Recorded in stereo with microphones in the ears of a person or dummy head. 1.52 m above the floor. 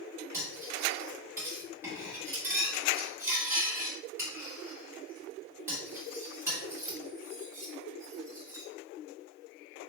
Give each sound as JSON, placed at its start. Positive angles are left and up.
{"t": 0.3, "sound": "cutlery clinking", "side_deg": -10, "distance_m": 1.5}